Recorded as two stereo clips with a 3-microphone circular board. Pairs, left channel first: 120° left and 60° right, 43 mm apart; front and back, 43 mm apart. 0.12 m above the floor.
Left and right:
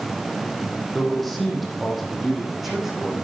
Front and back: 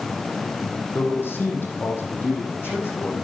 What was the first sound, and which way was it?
A man speaking, 35° left.